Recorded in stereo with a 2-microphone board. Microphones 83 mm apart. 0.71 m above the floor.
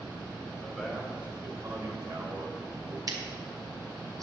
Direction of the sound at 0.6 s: 10° right (ahead or behind).